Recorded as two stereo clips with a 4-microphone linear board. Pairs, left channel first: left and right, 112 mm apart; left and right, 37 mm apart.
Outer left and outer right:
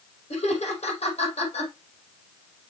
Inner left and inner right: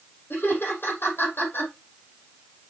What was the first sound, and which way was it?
Laughter, 65° left (ahead or behind).